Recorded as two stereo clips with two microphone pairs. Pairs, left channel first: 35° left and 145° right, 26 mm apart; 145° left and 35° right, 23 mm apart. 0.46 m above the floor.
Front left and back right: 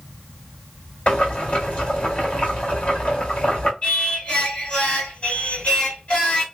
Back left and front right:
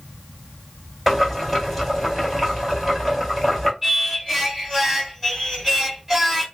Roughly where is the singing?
Ahead left.